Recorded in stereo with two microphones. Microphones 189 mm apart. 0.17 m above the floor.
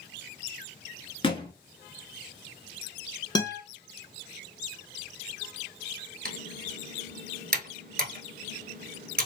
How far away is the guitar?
About 1.0 m.